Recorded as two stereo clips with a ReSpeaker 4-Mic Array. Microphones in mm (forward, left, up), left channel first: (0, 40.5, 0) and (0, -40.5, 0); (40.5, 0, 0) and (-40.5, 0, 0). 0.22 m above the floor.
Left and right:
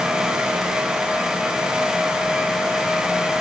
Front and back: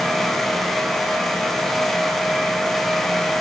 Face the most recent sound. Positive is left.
No sound to turn to.